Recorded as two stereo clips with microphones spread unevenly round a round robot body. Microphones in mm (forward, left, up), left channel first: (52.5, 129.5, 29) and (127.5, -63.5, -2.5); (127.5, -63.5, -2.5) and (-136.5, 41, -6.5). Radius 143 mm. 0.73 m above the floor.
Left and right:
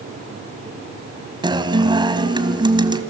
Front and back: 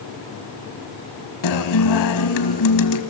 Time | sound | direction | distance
1.4 | a guitar | 5° left | 1.5 m